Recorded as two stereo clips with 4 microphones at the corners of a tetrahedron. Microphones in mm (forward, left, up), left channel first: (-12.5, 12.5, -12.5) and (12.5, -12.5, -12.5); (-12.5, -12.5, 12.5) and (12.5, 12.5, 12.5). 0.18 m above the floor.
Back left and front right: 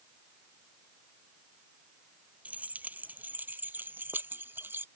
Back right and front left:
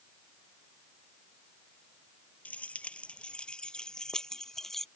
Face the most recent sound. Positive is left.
turn(degrees=-55)